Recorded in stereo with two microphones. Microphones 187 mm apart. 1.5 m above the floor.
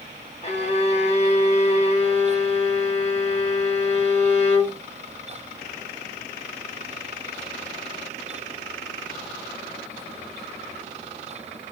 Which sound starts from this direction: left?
A violin, at 0.4 s.